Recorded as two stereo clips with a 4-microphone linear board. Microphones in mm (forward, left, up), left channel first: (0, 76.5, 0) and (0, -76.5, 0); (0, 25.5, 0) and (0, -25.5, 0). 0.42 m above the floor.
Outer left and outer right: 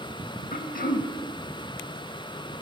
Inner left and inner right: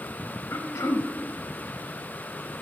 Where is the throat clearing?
65° left (ahead or behind), 0.6 m.